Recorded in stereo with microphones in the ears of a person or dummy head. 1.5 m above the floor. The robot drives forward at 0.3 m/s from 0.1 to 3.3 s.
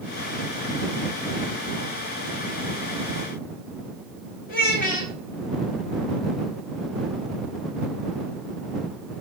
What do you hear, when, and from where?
4.5 s a child speaking: 50° left (ahead or behind), 0.6 m